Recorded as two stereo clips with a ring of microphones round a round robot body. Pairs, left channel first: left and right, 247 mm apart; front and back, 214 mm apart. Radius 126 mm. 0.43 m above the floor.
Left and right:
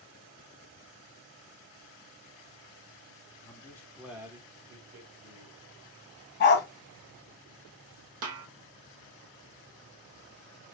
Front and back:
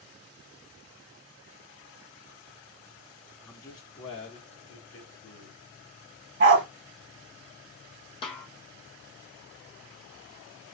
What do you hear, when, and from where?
3.4 s a man speaking: 70° left, 0.9 m; by 5.6 s 55° right, 1.8 m
6.4 s a dog barking: 140° left, 0.9 m
8.2 s a snare drum: 70° right, 0.7 m